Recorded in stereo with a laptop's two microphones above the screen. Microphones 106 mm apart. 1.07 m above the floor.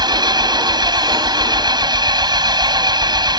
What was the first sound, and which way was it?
An engine running, 45° right (ahead or behind).